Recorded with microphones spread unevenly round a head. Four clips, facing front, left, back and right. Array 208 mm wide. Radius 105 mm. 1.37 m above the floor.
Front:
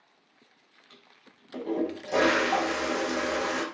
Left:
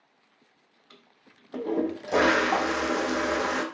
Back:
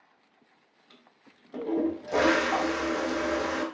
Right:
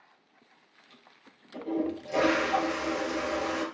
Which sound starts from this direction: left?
A toilet flushing, at 0.9 s.